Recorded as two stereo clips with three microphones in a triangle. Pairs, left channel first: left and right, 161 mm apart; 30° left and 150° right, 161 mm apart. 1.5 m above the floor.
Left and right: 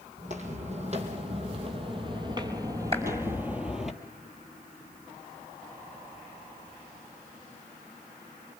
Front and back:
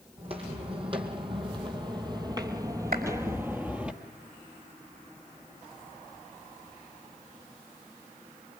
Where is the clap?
140° right, 5.5 m.